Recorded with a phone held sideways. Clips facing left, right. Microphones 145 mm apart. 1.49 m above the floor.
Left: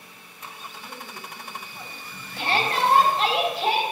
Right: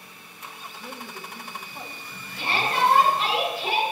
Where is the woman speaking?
45° right (ahead or behind), 1.5 m; by 3.4 s 20° right (ahead or behind), 3.5 m.